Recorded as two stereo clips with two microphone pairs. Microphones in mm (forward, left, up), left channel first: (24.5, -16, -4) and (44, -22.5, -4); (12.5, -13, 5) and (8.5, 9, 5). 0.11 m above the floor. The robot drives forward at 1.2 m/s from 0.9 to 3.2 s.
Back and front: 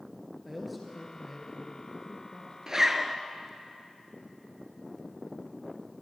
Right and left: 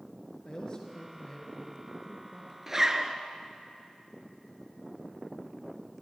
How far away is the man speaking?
About 1.8 m.